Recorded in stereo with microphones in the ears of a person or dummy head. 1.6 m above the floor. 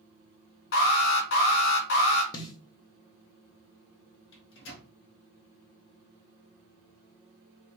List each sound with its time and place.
0.7 s an alarm: 60° left (ahead or behind), 1.7 m
2.3 s a snare drum: 20° left (ahead or behind), 0.9 m
4.3 s a microwave: 70° left (ahead or behind), 2.0 m